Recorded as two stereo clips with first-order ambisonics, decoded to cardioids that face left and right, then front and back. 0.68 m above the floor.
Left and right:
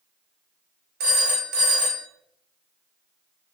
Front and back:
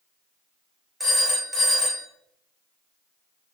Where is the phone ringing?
100° right, 1.0 m.